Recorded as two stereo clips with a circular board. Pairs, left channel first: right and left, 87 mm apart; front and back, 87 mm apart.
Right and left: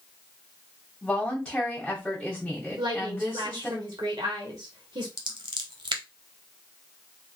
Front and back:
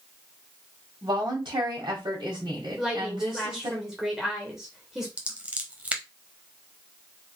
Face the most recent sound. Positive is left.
turn(degrees=110)